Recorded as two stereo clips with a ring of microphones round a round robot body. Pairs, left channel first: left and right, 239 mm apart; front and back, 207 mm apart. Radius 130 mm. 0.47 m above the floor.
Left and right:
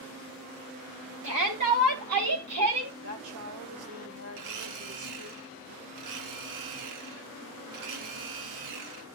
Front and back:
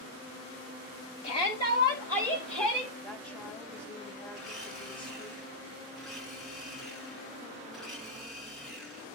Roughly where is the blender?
Right.